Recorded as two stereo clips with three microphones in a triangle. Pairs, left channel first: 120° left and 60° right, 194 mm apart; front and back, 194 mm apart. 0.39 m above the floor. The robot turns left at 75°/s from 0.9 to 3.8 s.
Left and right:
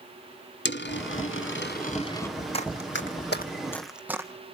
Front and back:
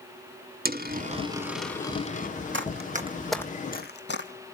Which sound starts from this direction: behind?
Running footsteps, at 2.5 s.